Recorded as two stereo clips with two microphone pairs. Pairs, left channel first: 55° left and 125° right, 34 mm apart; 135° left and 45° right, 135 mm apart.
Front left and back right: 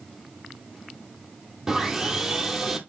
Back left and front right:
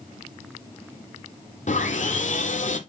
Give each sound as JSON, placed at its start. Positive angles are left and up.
{"t": 1.7, "sound": "sawing", "azimuth_deg": 165, "distance_m": 1.5}